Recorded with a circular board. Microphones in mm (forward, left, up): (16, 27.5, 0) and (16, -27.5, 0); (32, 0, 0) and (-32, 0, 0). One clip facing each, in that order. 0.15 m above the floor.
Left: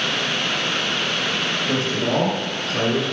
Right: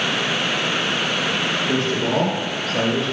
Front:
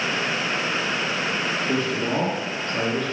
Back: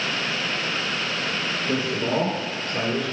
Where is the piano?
I don't hear a piano.